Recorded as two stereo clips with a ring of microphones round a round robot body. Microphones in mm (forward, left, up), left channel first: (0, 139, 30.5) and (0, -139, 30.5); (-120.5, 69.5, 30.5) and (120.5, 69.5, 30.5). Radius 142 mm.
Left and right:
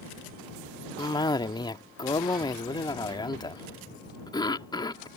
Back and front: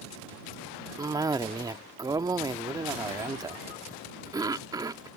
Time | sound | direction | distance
1.0 | a cough | 45° left | ?